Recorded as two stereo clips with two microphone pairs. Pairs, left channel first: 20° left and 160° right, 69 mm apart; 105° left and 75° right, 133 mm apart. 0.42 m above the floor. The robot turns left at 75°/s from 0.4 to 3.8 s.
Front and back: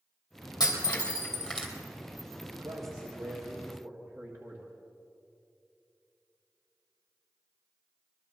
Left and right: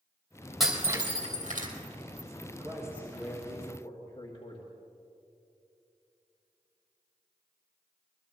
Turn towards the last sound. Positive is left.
turn(degrees=150)